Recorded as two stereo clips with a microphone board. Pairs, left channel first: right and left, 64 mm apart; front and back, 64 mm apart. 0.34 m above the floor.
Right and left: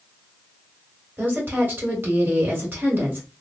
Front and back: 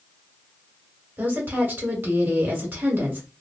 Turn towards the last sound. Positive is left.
turn(degrees=135)